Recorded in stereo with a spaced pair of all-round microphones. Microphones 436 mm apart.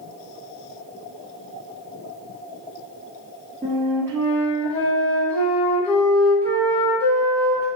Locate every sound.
3.6 s a flute: 5° left (ahead or behind), 1.5 m